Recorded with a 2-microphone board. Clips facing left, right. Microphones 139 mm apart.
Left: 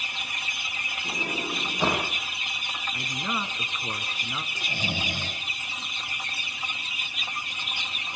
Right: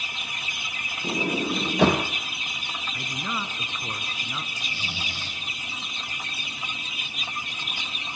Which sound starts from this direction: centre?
A man speaking, at 2.9 s.